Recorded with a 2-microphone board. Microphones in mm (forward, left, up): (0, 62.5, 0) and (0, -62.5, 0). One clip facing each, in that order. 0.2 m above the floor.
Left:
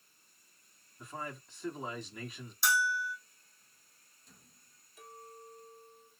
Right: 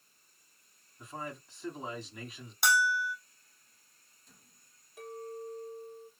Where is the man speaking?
Centre (ahead or behind), 1.7 m.